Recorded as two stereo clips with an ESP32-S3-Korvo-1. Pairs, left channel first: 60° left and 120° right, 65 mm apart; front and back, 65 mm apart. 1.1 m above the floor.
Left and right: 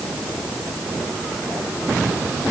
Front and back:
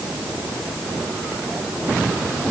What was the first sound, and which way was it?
Only background noise.